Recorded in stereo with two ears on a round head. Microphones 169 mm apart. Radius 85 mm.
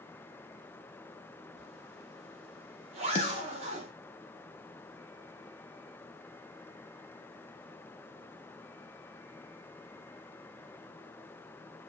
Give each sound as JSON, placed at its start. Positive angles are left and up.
{"t": 1.6, "sound": "a zipper", "side_deg": -35, "distance_m": 0.8}
{"t": 3.1, "sound": "a snare drum", "side_deg": 30, "distance_m": 0.7}